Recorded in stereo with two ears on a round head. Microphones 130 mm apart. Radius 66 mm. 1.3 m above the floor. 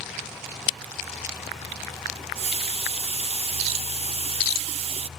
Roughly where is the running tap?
Right.